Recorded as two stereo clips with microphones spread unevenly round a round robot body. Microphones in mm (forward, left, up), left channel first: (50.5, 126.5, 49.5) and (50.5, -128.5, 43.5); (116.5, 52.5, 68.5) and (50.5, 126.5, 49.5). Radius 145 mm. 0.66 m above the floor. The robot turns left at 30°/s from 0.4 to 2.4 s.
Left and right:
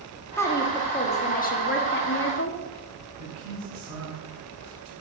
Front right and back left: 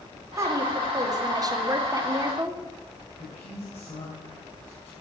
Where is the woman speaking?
170° left, 1.5 m; by 2.6 s 110° left, 1.5 m.